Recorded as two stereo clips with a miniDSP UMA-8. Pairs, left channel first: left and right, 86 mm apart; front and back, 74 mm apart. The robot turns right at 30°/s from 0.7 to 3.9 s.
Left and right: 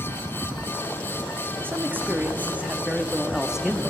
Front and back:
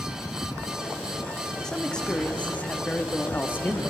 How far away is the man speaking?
About 0.7 m.